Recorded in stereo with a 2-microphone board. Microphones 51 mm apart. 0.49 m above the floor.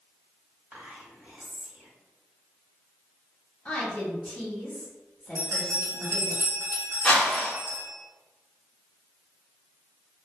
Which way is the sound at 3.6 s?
30° left (ahead or behind).